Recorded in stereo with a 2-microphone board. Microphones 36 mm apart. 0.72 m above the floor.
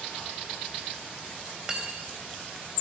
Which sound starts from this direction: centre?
Cutlery clinking, at 1.7 s.